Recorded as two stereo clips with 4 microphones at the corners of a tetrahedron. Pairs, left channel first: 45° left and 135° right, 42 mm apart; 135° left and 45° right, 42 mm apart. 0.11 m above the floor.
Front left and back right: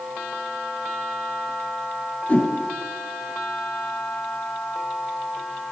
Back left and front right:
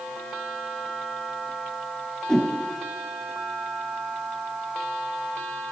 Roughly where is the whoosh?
Ahead left.